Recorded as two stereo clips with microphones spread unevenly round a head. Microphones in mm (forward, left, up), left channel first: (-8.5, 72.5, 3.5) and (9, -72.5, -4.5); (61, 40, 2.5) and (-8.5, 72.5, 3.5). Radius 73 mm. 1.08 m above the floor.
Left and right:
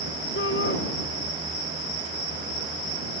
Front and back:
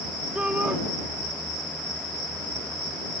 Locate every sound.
0.3 s a shout: 80° left